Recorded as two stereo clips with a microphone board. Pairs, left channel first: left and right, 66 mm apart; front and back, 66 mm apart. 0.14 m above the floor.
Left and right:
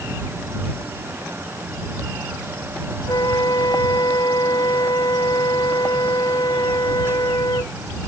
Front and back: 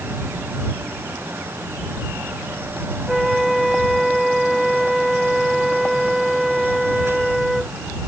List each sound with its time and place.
3.1 s a flute: 90° left